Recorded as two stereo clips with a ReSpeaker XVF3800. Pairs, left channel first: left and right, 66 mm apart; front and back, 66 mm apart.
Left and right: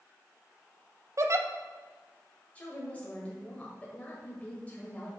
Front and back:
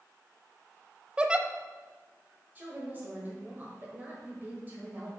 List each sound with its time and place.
1.2 s a giggle: 110° right, 0.6 m
2.5 s a woman speaking: 145° left, 1.5 m